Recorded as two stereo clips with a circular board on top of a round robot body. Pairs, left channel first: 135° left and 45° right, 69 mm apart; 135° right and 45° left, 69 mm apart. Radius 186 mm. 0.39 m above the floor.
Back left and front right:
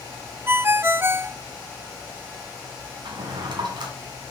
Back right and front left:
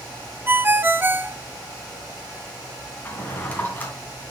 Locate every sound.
0.5 s a ringtone: 5° right, 0.6 m
3.0 s a drawer: 65° right, 2 m